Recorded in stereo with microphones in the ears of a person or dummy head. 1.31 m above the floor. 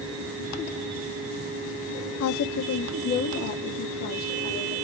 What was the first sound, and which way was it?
A woman speaking, 80° left.